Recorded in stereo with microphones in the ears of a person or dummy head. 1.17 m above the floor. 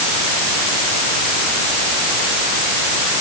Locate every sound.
Only background noise.